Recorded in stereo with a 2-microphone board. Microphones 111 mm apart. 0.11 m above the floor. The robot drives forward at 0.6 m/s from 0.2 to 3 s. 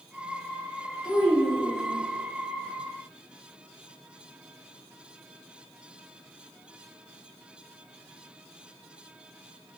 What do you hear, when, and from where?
1.0 s a child speaking: 40° right (ahead or behind), 1.7 m; by 2.0 s 45° right (ahead or behind), 1.6 m